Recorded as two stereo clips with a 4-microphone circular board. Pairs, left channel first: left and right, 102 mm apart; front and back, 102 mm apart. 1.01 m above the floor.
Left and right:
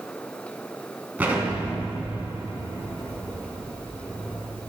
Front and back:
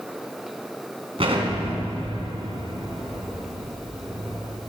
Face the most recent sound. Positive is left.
turn(degrees=-160)